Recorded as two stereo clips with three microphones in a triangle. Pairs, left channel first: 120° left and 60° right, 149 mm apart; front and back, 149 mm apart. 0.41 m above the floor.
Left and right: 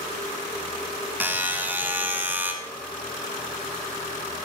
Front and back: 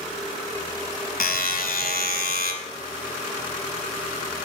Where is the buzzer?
20° left, 1.2 m.